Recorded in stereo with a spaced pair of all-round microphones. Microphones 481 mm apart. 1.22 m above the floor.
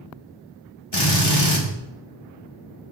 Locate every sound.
0.9 s a drill: 55° left (ahead or behind), 2.5 m